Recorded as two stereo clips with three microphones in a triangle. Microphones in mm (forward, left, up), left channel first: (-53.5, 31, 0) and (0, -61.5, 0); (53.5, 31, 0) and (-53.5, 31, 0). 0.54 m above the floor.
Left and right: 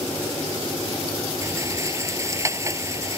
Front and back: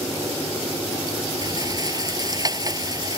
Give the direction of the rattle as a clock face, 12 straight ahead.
4 o'clock.